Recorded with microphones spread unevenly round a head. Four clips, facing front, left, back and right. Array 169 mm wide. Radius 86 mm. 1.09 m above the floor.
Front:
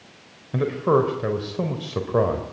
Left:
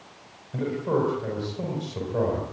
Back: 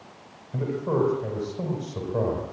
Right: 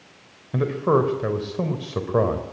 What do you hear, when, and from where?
0.5 s a man speaking: 45° right, 4.5 m